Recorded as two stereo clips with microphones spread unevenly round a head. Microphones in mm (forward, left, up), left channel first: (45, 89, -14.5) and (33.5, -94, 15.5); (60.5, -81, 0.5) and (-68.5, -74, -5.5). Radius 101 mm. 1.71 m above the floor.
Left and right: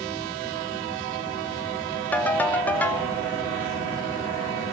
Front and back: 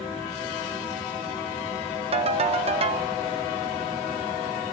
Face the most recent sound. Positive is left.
turn(degrees=175)